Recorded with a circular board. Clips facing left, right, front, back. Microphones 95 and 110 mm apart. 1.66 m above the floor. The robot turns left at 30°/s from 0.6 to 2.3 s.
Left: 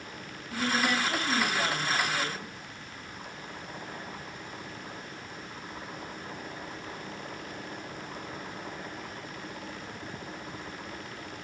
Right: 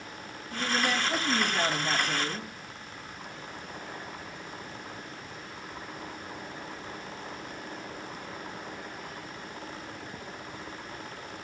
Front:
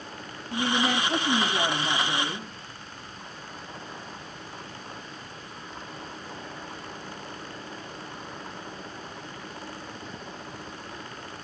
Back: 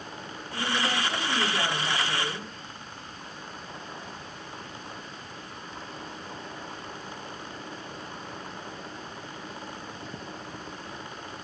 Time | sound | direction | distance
0.5 | a woman speaking | 10° right | 3 m